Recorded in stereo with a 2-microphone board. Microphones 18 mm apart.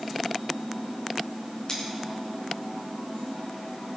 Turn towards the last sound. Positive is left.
turn(degrees=25)  # may be behind; listen again after turning